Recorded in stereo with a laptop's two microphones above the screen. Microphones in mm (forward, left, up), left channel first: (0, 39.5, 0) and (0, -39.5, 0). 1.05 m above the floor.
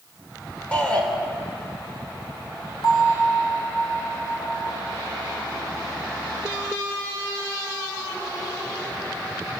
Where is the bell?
60° left (ahead or behind), 7.5 m.